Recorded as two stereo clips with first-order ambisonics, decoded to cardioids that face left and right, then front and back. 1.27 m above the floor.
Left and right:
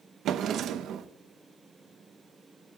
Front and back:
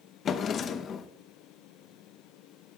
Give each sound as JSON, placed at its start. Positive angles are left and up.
{"t": 0.2, "sound": "a drawer", "azimuth_deg": -50, "distance_m": 0.8}